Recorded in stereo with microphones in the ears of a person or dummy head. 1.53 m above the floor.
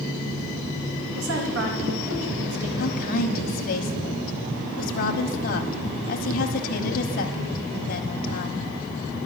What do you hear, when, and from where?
1.1 s a woman speaking: 70° right (ahead or behind), 2.5 m; by 2.7 s 85° right, 2.5 m
2.8 s a woman speaking: 55° left (ahead or behind), 1.2 m